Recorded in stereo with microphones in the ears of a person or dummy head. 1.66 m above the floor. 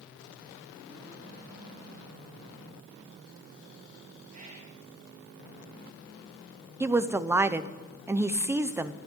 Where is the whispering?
45° right (ahead or behind), 3 m.